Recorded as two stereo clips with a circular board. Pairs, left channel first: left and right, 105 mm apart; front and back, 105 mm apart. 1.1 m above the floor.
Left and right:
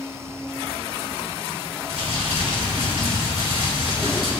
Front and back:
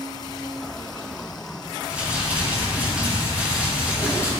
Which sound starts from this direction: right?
Crumpling, at 1.9 s.